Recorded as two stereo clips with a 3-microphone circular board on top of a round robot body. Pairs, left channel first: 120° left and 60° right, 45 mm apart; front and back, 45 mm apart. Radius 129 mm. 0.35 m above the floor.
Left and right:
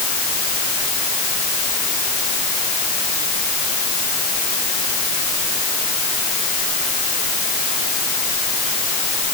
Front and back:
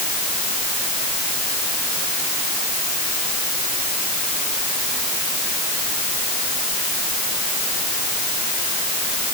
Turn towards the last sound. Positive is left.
No sound to turn to.